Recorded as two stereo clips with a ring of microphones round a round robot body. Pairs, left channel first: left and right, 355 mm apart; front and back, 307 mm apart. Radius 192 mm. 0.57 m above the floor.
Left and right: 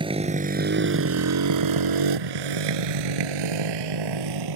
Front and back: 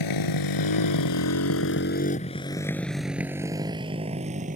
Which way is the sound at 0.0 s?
15° right.